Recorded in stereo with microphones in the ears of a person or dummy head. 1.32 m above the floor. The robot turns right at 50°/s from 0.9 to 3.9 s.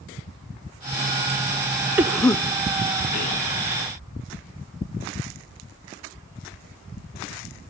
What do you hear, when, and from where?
2.0 s a cough: 10° right (ahead or behind), 0.5 m; by 3.4 s 45° left (ahead or behind), 0.5 m